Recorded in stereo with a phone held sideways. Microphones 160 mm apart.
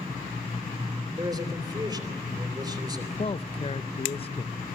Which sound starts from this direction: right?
A man speaking, at 1.2 s.